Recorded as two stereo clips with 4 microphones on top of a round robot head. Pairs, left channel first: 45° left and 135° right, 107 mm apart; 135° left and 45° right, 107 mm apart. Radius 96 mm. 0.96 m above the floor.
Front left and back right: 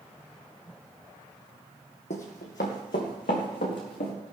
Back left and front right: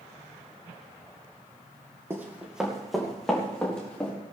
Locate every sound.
2.1 s running footsteps: 25° left, 1.9 m; by 4.1 s 55° left, 4.5 m